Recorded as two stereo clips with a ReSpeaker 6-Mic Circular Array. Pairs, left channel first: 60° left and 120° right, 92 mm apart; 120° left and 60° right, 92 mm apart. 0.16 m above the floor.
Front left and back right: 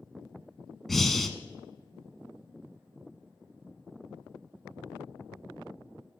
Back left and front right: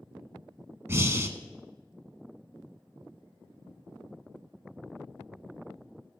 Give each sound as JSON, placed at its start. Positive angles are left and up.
{"t": 0.9, "sound": "breathing", "azimuth_deg": -25, "distance_m": 0.7}